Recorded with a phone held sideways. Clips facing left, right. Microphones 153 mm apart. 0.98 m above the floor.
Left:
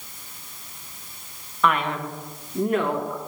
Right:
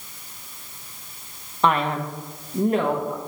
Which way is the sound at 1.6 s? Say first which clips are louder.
Right 2 dB; 30° right (ahead or behind).